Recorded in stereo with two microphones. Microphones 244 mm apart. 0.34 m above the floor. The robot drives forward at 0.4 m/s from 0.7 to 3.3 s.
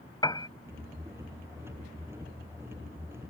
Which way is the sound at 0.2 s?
15° left (ahead or behind).